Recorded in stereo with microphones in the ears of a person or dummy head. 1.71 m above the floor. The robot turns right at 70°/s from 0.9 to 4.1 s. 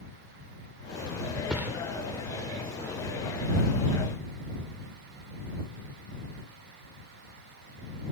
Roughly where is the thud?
Centre.